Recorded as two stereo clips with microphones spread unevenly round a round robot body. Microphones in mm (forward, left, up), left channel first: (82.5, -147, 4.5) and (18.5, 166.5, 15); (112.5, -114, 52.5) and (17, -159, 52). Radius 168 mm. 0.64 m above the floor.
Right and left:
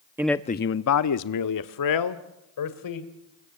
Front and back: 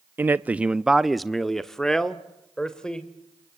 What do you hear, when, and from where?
0.2 s a man speaking: 175° left, 0.5 m; by 3.6 s 55° right, 3 m